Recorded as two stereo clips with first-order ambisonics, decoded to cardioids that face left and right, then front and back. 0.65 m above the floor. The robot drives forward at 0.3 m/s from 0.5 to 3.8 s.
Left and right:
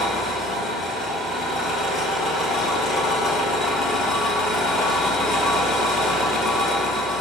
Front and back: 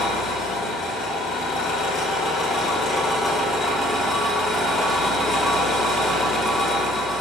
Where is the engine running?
20° left, 1.1 m; by 7.2 s 105° left, 0.7 m.